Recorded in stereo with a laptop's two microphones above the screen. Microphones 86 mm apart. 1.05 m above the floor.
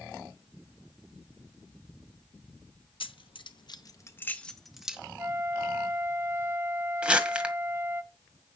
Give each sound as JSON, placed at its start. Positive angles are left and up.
{"t": 3.0, "sound": "keys jangling", "side_deg": 80, "distance_m": 0.8}
{"t": 5.2, "sound": "a flute", "side_deg": -30, "distance_m": 0.8}
{"t": 7.0, "sound": "crumpling", "side_deg": -10, "distance_m": 1.6}